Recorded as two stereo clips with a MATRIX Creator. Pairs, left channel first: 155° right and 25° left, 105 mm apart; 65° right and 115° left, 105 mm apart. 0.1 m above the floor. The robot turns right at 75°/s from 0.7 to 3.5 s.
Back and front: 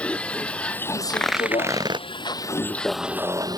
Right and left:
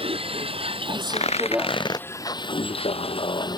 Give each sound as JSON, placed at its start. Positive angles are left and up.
{"t": 0.0, "sound": "a vehicle", "azimuth_deg": 125}
{"t": 1.1, "sound": "tearing paper", "azimuth_deg": -80}